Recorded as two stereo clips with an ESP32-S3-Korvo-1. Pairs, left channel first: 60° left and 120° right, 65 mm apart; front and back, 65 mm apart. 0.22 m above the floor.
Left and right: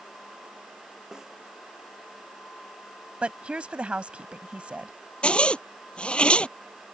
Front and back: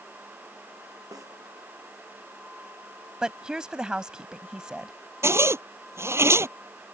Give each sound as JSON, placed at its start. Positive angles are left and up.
{"t": 1.1, "sound": "a snare drum", "azimuth_deg": 160}
{"t": 3.2, "sound": "a woman speaking", "azimuth_deg": -130}
{"t": 5.2, "sound": "a zipper", "azimuth_deg": 135}